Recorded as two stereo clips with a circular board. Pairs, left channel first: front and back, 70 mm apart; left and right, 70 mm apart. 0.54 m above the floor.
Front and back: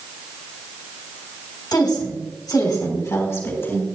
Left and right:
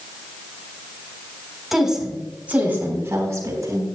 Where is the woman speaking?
5° right, 3.5 m; by 3.9 s 55° right, 4 m.